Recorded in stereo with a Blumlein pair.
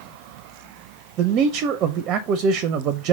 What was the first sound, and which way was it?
A man speaking, 35° right.